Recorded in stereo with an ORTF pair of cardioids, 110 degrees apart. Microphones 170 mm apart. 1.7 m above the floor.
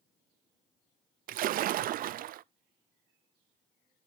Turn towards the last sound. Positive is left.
turn(degrees=-60)